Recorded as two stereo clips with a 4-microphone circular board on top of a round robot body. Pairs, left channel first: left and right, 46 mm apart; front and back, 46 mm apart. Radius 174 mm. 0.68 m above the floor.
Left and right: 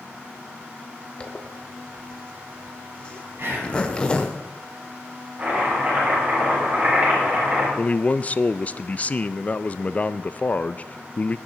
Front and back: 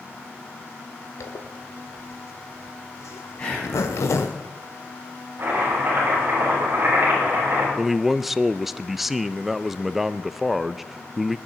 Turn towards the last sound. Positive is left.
turn(degrees=100)